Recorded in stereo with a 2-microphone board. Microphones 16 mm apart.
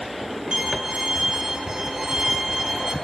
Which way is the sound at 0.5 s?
35° right (ahead or behind).